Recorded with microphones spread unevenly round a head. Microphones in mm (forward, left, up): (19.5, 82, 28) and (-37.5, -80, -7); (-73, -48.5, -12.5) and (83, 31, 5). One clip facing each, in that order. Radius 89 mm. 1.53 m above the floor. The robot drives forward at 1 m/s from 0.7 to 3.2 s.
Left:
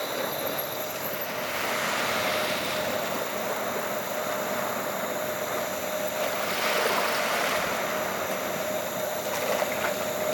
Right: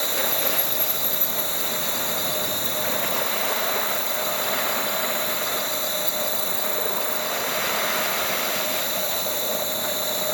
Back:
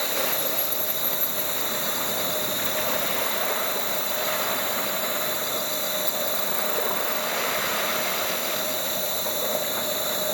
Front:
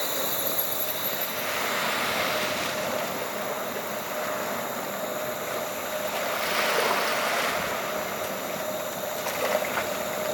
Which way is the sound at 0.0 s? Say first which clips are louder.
Right 2 dB, back 2 dB; 80° right.